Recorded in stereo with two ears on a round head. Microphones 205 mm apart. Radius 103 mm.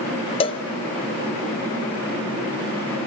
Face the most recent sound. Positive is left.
turn(degrees=25)  # may be behind; listen again after turning